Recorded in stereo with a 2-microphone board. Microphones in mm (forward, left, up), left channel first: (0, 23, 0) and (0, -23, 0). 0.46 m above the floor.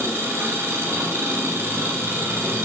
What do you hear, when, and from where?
0.0 s an engine running: 85° right, 1.1 m